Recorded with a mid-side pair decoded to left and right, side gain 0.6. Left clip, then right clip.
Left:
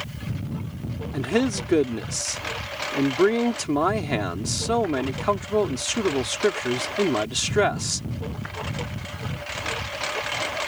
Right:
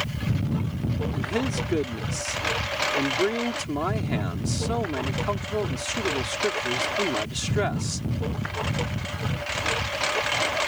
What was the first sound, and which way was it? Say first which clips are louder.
A lawn mower: right 5 dB; 25° right.